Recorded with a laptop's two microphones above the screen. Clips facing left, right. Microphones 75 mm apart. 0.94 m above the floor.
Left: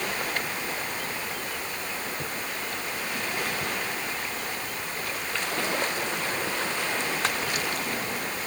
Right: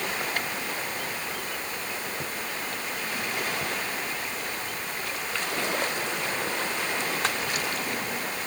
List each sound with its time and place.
Only background noise.